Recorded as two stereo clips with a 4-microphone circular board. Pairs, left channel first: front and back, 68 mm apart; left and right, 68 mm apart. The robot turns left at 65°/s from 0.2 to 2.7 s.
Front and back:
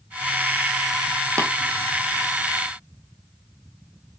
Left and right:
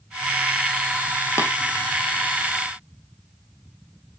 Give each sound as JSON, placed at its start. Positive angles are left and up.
{"t": 1.4, "sound": "tapping", "azimuth_deg": 140, "distance_m": 2.5}